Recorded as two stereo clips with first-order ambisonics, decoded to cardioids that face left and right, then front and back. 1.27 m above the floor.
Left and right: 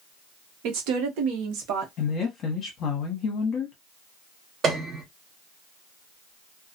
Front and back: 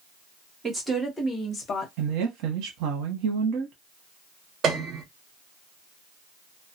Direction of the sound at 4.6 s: 140° right.